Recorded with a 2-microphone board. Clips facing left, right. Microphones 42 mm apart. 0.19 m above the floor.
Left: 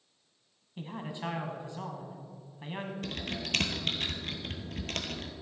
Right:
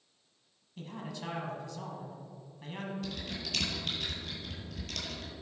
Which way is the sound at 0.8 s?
25° left (ahead or behind).